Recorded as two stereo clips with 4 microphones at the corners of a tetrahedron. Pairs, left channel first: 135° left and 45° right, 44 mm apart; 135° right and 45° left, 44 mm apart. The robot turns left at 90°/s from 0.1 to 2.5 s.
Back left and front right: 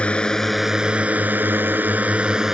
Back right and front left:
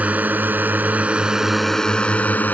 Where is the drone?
80° left; by 2.5 s 120° right.